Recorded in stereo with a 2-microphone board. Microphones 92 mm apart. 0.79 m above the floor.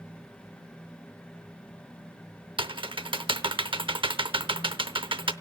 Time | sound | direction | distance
2.6 | typing on a keyboard | 65° right (ahead or behind) | 0.7 m